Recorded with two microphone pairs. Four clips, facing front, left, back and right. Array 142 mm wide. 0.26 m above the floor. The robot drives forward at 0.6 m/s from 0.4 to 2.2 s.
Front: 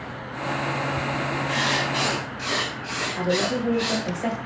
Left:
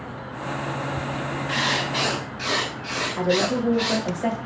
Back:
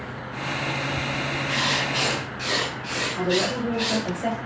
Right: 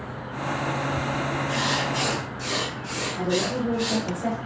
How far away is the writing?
About 2 m.